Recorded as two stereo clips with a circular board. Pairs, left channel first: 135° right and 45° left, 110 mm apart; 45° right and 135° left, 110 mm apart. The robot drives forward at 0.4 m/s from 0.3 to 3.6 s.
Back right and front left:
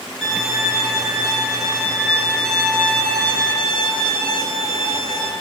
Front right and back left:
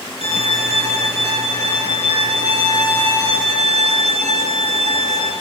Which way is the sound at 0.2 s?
135° left.